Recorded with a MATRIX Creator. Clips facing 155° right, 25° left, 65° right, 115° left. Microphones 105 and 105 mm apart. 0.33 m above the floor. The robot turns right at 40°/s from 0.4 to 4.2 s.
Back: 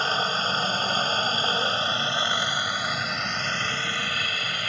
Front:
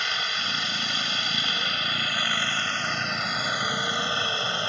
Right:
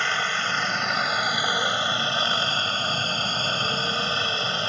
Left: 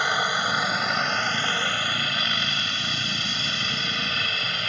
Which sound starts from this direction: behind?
A helicopter, at 0.0 s.